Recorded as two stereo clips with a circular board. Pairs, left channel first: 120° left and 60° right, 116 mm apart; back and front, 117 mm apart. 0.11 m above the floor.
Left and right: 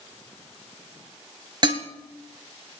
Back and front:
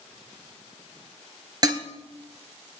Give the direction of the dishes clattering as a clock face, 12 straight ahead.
1 o'clock.